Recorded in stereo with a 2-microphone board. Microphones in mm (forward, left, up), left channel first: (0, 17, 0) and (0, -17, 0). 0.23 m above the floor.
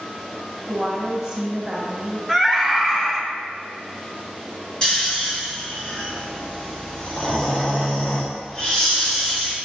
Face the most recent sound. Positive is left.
turn(degrees=25)  # may be behind; listen again after turning